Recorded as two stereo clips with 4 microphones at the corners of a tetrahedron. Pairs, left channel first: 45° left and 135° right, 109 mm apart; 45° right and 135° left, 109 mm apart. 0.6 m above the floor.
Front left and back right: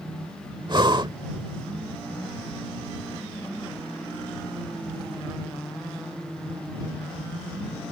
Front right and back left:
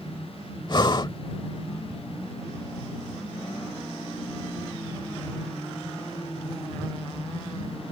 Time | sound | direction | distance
0.7 | breathing | 90° right | ?